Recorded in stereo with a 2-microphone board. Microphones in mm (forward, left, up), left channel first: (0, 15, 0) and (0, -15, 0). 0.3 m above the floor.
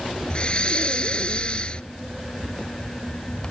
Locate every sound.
0.3 s breathing: 35° left (ahead or behind)